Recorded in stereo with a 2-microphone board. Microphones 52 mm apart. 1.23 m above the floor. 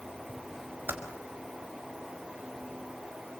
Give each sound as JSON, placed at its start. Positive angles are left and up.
{"t": 0.9, "sound": "typing on a keyboard", "side_deg": -40, "distance_m": 4.5}